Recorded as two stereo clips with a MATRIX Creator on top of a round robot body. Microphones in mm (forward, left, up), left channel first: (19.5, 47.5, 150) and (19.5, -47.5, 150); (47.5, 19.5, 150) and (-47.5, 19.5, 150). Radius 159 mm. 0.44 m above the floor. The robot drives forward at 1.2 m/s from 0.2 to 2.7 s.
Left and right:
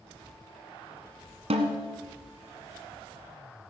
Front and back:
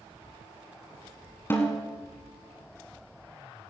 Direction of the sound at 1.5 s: 70° right.